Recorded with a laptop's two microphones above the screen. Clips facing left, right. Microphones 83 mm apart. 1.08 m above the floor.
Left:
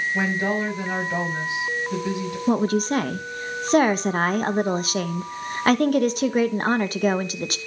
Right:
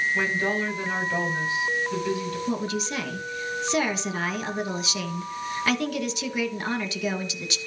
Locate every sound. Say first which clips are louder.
0.1 s a woman speaking: left 2 dB; 20° left (ahead or behind), 6 m
2.5 s a woman speaking: left 11 dB; 45° left (ahead or behind), 0.8 m